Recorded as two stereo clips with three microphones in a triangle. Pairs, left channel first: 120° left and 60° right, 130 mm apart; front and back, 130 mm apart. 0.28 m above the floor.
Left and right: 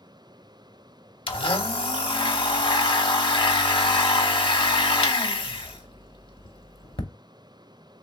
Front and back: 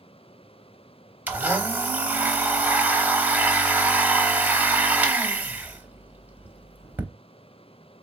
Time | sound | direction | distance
1.3 | a blender | 110° left | 0.7 m